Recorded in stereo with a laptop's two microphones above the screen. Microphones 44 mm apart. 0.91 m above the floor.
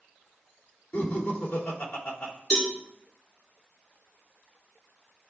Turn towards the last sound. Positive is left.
turn(degrees=10)  # may be behind; listen again after turning